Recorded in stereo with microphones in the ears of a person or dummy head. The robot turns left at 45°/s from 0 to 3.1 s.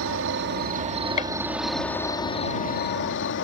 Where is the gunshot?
40° left (ahead or behind); by 1.3 s 35° left (ahead or behind).